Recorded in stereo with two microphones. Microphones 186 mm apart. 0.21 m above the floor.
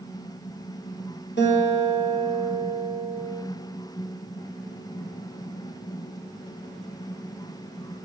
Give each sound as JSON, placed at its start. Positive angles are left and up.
{"t": 1.4, "sound": "a guitar", "side_deg": 80, "distance_m": 1.8}